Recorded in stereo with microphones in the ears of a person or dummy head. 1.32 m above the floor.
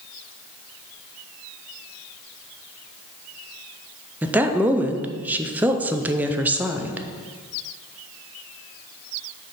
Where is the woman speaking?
10° right (ahead or behind), 0.6 m.